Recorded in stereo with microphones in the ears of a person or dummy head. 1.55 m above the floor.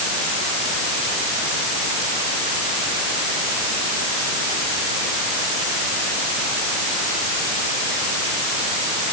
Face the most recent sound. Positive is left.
No sound to turn to.